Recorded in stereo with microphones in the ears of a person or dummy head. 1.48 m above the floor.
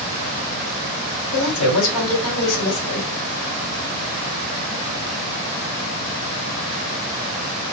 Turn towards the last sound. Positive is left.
turn(degrees=80)